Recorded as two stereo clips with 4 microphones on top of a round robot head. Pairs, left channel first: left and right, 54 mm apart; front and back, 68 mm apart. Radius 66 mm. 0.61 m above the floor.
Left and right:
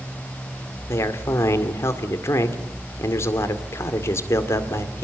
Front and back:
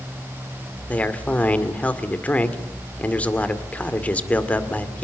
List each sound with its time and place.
0.9 s a man speaking: 65° left, 2.5 m